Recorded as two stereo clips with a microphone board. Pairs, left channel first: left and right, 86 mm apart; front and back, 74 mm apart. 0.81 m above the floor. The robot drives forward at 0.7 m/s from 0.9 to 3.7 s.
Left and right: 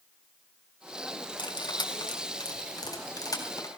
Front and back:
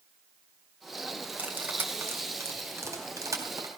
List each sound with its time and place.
1.4 s cutlery clinking: 110° left, 2.5 m; by 3.7 s 135° left, 3.5 m